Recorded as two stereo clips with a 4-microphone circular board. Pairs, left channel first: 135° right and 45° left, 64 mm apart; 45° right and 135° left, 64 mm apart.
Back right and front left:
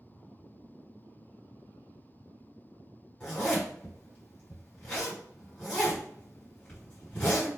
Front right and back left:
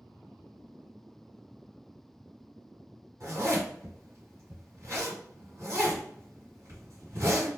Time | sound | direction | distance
3.2 | a zipper | 150° left | 1.7 m